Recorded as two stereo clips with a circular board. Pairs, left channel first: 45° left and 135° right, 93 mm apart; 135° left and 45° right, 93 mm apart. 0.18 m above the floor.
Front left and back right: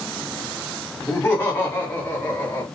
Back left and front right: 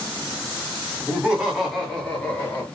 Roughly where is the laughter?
Ahead.